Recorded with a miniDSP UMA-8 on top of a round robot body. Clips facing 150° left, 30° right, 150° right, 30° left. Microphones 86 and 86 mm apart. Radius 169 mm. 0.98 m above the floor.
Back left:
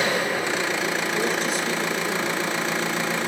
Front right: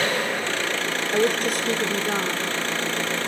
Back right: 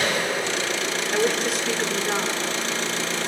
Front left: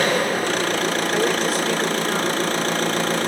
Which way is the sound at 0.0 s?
75° left.